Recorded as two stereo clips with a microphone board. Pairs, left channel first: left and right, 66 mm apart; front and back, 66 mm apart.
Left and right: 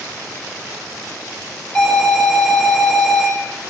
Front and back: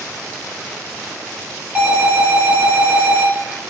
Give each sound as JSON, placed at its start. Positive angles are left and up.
{"t": 1.8, "sound": "an alarm", "azimuth_deg": 140, "distance_m": 0.8}